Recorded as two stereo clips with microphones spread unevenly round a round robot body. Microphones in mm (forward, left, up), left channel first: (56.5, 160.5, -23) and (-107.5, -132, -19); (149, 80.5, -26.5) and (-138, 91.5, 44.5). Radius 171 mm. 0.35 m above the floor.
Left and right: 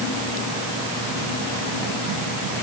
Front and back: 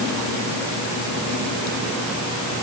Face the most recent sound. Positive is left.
No sound to turn to.